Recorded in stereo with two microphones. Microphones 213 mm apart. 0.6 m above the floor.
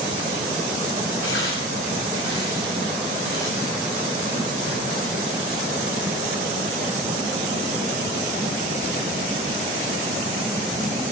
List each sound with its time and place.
1.2 s tearing paper: 85° left, 8.5 m